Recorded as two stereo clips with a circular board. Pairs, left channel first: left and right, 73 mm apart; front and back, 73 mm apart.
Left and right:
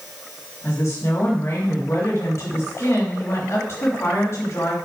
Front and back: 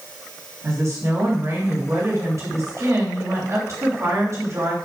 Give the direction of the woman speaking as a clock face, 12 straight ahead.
7 o'clock.